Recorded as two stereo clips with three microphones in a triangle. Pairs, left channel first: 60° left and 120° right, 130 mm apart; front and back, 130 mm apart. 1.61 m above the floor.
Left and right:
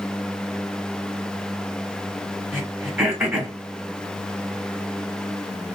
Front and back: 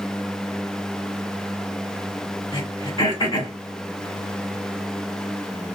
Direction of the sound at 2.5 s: 40° right.